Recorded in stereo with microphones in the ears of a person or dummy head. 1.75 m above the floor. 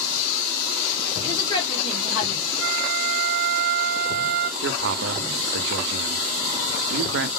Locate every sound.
1.2 s a woman speaking: 25° left (ahead or behind), 1.6 m; by 2.4 s 55° left (ahead or behind), 1.2 m
2.6 s a flute: 75° right (ahead or behind), 0.5 m
4.6 s a man speaking: 65° right (ahead or behind), 0.5 m